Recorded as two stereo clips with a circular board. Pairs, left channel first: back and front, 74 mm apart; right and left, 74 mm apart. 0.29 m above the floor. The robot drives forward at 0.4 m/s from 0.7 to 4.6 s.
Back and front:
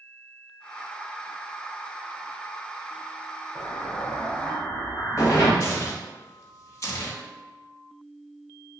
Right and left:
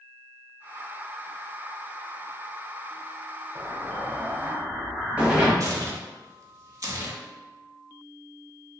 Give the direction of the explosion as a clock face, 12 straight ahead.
8 o'clock.